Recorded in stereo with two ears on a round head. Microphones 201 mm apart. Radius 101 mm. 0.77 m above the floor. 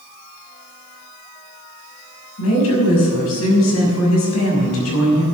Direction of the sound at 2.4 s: 80° left.